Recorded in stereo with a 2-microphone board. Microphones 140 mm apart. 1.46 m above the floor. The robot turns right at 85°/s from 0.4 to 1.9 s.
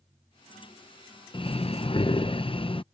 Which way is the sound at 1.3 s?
60° left.